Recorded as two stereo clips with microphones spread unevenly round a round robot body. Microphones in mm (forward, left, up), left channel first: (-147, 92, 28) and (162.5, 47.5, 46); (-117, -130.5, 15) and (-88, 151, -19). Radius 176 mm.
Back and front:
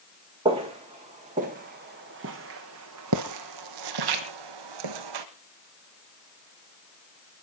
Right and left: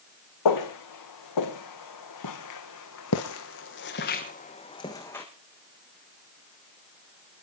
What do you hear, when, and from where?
0.5 s footsteps: 85° right, 3 m; by 5.3 s 10° right, 1.8 m